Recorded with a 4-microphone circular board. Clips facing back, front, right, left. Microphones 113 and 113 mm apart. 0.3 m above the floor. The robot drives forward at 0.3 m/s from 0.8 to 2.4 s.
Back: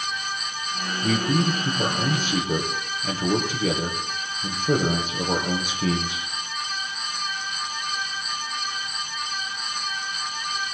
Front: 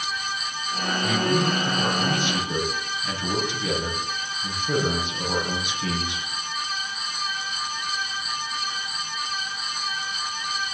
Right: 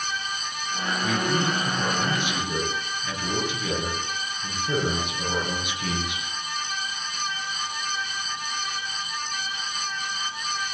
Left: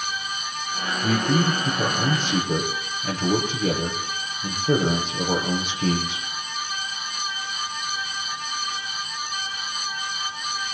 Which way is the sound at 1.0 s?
135° left.